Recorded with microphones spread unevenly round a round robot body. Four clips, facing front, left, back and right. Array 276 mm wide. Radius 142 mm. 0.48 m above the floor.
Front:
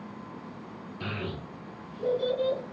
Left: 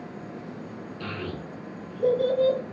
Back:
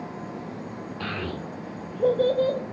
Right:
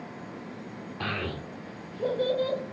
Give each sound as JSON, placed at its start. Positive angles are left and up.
{"t": 1.0, "sound": "a child speaking", "azimuth_deg": -130, "distance_m": 1.0}